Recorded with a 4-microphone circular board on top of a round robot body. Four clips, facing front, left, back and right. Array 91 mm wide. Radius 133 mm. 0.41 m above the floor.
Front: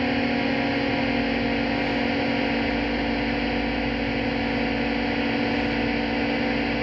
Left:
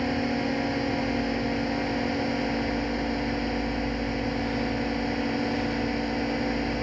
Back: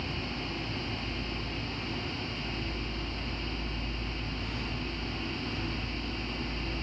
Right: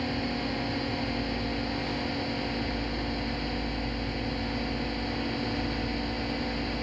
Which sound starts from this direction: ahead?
A drone, at 0.0 s.